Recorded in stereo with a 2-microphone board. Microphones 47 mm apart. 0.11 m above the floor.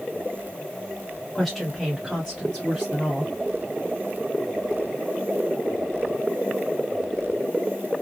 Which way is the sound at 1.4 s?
5° left (ahead or behind).